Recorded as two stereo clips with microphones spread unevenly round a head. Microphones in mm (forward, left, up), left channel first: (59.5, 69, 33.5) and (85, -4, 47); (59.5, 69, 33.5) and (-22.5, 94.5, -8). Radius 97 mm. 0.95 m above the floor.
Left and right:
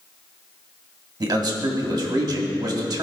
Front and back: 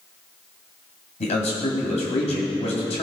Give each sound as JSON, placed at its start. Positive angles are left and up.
{"t": 1.2, "sound": "a man speaking", "azimuth_deg": -30, "distance_m": 2.0}